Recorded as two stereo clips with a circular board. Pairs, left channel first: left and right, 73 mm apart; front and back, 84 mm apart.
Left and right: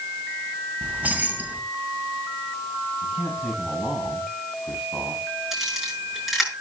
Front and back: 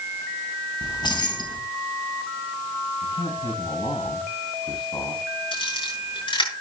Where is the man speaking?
5° left, 4 m.